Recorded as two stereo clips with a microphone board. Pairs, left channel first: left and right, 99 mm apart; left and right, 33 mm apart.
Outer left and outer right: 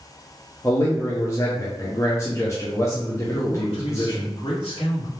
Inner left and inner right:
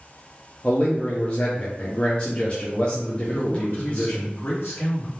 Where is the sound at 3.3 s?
65° left (ahead or behind), 2 m.